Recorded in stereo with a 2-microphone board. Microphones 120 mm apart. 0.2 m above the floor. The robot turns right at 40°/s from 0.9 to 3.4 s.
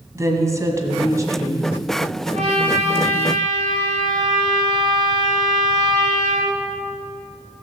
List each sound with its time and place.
0.1 s a woman speaking: 25° right (ahead or behind), 1.6 m
2.3 s a trumpet: 95° right, 4.5 m; by 6.5 s 50° right, 4.5 m